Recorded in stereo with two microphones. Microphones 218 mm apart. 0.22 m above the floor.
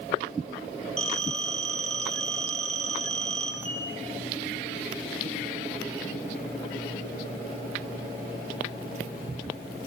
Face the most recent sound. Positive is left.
turn(degrees=-10)  # may be behind; listen again after turning